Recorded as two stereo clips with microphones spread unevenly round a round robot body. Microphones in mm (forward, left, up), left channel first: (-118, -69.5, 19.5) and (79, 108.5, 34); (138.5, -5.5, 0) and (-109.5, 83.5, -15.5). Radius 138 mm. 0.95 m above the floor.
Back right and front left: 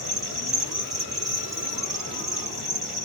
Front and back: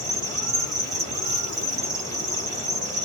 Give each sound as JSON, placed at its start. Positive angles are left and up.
{"t": 0.0, "sound": "an insect", "azimuth_deg": 115, "distance_m": 1.8}